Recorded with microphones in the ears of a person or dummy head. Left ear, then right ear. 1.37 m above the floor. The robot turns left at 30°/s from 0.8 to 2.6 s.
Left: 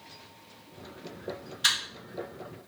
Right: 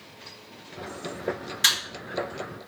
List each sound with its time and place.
1.6 s a camera shutter: 55° right (ahead or behind), 2 m